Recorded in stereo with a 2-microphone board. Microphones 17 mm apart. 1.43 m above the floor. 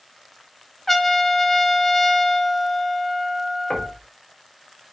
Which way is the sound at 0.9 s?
10° left (ahead or behind).